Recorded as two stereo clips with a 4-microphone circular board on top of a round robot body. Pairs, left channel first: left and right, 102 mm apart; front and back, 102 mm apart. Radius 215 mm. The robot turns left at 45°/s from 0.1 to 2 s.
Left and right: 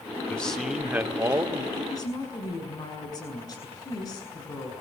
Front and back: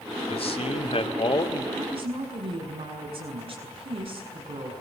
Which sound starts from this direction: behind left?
A woman speaking, at 1.7 s.